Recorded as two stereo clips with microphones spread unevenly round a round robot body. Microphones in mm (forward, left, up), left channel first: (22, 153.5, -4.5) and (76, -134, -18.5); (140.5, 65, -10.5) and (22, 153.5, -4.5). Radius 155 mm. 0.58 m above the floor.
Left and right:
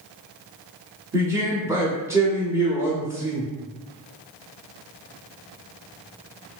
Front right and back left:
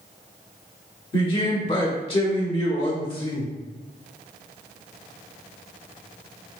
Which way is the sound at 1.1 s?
5° right.